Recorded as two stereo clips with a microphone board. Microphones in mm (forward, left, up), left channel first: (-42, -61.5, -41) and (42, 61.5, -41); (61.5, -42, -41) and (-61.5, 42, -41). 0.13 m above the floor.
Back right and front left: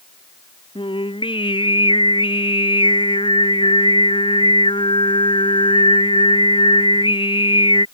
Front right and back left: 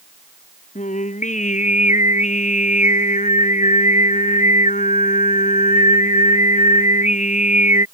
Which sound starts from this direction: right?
Singing, at 0.8 s.